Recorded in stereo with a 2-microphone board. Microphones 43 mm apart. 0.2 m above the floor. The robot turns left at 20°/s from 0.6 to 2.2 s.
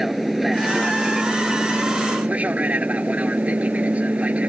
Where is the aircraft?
5° right; by 4.5 s 35° right.